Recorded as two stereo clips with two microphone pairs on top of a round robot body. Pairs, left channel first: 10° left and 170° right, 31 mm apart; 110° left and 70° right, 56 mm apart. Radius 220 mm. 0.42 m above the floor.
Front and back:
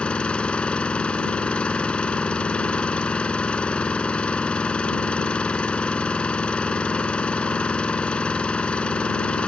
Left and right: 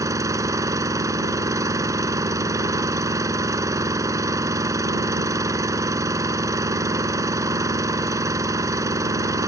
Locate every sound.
0.0 s an engine running: 45° right